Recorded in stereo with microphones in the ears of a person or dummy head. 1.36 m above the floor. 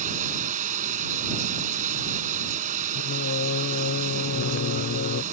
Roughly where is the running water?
Right.